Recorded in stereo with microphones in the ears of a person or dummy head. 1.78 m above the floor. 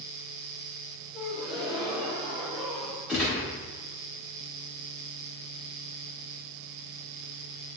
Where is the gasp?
15° right (ahead or behind), 2.5 m.